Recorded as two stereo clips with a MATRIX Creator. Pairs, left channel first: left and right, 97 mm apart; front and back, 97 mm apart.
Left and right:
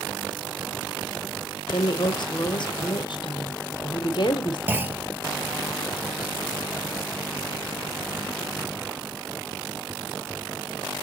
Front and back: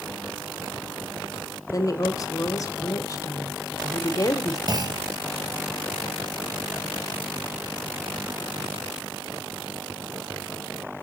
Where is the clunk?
155° right, 0.6 m.